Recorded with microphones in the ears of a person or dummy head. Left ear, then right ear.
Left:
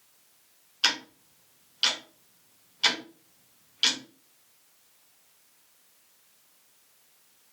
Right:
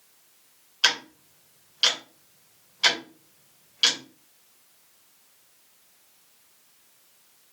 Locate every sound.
0.8 s ticking: 5° right (ahead or behind), 0.6 m